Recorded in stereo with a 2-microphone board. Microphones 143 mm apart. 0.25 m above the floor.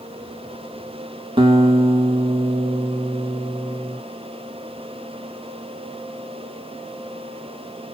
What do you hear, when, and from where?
1.4 s a guitar: 40° right (ahead or behind), 0.6 m